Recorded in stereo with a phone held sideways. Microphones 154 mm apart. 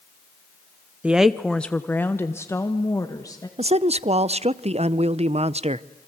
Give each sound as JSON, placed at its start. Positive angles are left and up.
{"t": 1.0, "sound": "a woman speaking", "side_deg": -10, "distance_m": 0.6}
{"t": 3.6, "sound": "a man speaking", "side_deg": -40, "distance_m": 0.5}